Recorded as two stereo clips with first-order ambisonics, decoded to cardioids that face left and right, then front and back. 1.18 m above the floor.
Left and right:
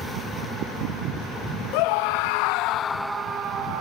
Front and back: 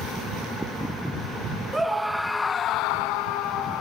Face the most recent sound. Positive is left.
turn(degrees=-45)